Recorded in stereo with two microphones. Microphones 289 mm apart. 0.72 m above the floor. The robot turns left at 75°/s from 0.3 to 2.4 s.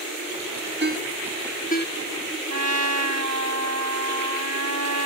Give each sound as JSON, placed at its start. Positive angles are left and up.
{"t": 0.8, "sound": "a ringtone", "side_deg": -40}
{"t": 2.5, "sound": "a trumpet", "side_deg": -65}